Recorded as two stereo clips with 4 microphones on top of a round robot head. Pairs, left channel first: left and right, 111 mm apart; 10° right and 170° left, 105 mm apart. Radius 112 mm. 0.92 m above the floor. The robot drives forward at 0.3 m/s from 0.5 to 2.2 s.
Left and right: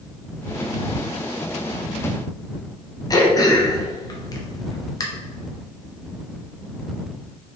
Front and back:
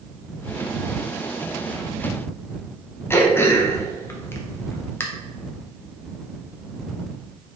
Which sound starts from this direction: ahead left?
Throat clearing, at 3.1 s.